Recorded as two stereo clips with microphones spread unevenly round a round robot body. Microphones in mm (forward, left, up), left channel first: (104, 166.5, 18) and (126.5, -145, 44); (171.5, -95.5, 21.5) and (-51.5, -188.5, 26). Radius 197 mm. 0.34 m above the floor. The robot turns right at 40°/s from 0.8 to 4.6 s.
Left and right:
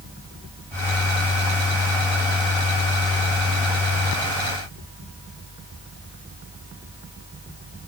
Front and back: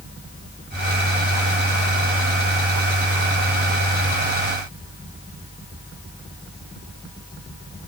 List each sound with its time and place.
Only background noise.